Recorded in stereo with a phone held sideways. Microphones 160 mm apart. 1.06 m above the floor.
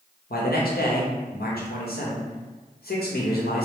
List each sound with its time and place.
0.3 s a man speaking: 75° left (ahead or behind), 1.0 m